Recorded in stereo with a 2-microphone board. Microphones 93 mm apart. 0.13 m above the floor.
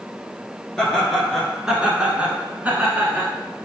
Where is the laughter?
5° left (ahead or behind), 1.6 m; by 3.3 s 25° right (ahead or behind), 1.2 m.